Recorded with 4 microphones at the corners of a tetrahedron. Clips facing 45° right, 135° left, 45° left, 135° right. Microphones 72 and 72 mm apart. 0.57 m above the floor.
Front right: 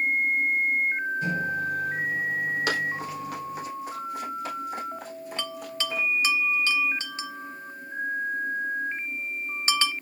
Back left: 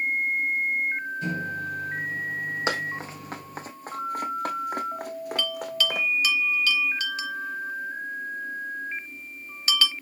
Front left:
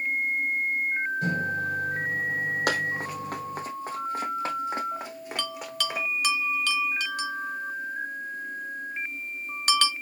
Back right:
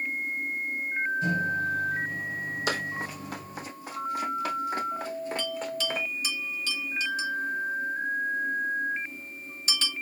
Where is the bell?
20° left, 0.7 m.